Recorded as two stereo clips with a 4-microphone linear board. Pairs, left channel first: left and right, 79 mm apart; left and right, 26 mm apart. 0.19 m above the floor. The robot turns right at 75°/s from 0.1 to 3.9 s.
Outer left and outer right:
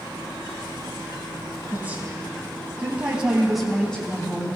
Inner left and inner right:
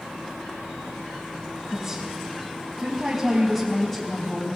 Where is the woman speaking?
15° right (ahead or behind), 1.6 m; by 4.6 s 10° left (ahead or behind), 1.6 m.